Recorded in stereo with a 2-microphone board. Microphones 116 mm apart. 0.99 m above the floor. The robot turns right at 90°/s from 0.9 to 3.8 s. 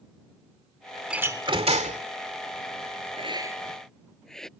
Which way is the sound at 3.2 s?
50° right (ahead or behind).